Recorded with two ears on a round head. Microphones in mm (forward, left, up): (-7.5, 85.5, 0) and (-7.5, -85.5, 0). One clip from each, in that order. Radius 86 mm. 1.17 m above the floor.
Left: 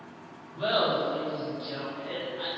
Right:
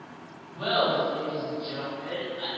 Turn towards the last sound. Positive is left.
turn(degrees=30)  # may be behind; listen again after turning